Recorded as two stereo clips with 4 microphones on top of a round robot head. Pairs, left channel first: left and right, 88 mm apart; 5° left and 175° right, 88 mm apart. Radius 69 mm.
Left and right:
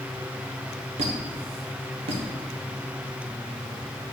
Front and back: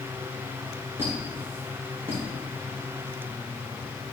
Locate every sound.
1.0 s a squeak: 100° right, 1.2 m